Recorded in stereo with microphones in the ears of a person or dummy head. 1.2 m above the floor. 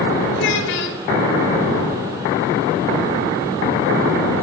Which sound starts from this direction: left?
A child speaking, at 0.3 s.